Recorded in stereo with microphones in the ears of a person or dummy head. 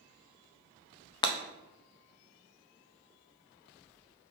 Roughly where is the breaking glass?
Left.